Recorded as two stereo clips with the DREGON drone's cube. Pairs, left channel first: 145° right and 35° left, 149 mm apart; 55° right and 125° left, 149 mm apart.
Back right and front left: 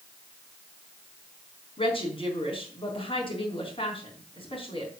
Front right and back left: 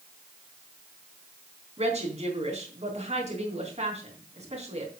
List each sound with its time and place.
1.8 s a woman speaking: 165° left, 4 m